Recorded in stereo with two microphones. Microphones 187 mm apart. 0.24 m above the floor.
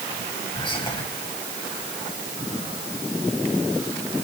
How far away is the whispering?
About 1.5 m.